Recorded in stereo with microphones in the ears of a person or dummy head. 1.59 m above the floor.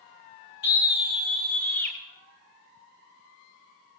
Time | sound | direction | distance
0.6 | a scream | 70° left (ahead or behind) | 1.4 m